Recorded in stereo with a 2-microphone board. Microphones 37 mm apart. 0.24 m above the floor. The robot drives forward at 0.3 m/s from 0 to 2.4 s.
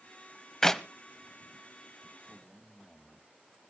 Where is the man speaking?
20° left (ahead or behind), 2 m.